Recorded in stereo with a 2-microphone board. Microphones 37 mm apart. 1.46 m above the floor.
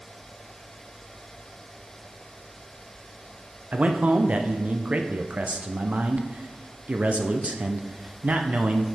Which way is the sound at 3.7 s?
40° right (ahead or behind).